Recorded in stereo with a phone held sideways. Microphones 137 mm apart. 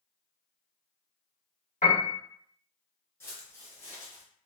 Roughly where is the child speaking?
No child speaking in this recording.